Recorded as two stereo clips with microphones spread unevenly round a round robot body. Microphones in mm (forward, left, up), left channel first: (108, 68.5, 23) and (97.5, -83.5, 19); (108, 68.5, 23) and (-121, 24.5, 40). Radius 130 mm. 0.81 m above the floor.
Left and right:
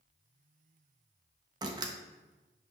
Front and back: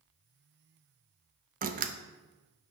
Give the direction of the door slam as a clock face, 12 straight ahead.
5 o'clock.